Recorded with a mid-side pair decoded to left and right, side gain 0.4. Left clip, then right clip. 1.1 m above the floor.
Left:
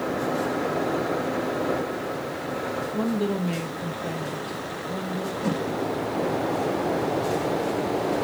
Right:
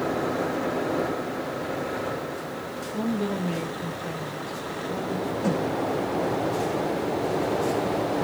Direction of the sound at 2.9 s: 10° left.